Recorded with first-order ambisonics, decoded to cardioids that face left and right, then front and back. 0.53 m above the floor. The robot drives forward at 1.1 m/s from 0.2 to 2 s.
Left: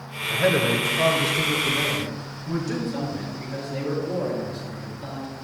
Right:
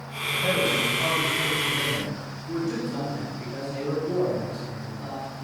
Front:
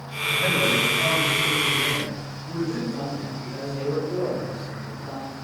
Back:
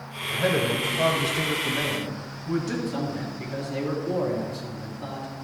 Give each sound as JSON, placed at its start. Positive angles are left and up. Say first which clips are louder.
{"t": 0.3, "sound": "a man speaking", "louder": "left 3 dB, front 3 dB", "azimuth_deg": 100, "distance_m": 1.5}
{"t": 2.9, "sound": "a man speaking", "louder": "left 1 dB, even", "azimuth_deg": 180, "distance_m": 3.5}